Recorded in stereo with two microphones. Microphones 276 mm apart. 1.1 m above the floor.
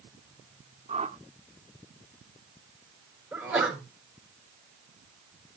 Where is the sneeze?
5° right (ahead or behind), 6 m.